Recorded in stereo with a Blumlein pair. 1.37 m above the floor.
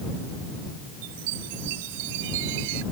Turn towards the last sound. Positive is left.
turn(degrees=-50)